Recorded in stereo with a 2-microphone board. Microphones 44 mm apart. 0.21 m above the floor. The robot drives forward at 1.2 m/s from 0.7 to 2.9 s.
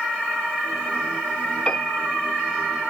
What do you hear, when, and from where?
1.7 s a piano: 25° left (ahead or behind), 2.5 m; by 2.1 s 30° left (ahead or behind), 2 m